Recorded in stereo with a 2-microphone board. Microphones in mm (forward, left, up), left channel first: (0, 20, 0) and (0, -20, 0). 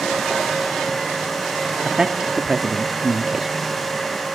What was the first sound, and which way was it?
A man speaking, 20° right (ahead or behind).